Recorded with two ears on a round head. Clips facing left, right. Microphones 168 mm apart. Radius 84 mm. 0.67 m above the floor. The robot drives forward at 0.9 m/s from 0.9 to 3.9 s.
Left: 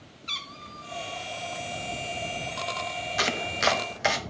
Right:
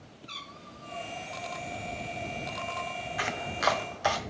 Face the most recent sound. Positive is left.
turn(degrees=25)  # may be behind; listen again after turning